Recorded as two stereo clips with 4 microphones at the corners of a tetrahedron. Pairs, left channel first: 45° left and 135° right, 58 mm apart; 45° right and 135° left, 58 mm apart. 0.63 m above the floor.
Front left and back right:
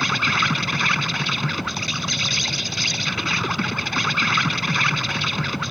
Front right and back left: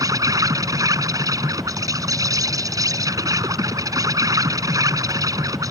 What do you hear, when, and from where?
0.0 s an insect: 135° left